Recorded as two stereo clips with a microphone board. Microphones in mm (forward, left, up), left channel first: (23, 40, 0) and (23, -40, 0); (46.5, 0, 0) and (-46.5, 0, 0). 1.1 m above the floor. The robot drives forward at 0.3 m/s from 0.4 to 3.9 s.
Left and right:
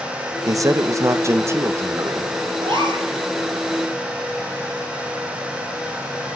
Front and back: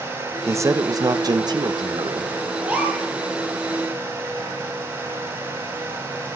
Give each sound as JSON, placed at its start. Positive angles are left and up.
{"t": 0.5, "sound": "a man speaking", "azimuth_deg": -125, "distance_m": 0.7}
{"t": 2.6, "sound": "a gasp", "azimuth_deg": -105, "distance_m": 5.5}